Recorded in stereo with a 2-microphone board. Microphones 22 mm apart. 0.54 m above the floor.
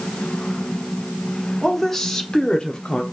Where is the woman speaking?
10° left (ahead or behind), 1.5 m; by 3.0 s 45° left (ahead or behind), 1.0 m.